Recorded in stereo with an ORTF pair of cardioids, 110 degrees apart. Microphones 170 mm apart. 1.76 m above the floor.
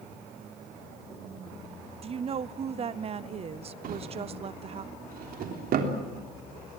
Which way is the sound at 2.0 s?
35° right.